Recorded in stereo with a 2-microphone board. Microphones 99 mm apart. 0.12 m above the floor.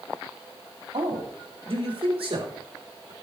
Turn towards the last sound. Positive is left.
turn(degrees=-60)  # may be behind; listen again after turning